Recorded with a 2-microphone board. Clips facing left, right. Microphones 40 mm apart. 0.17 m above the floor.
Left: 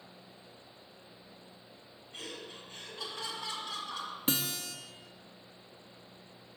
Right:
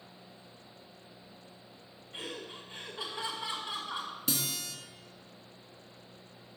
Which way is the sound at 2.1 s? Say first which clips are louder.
Right 3 dB; 20° right (ahead or behind).